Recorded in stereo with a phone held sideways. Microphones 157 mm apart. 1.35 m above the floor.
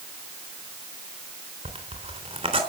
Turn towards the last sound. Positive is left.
turn(degrees=-40)  # may be behind; listen again after turning